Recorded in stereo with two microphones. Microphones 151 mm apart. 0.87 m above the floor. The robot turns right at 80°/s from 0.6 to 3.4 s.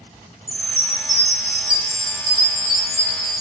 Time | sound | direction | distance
0.5 | a chime | 35° right | 0.7 m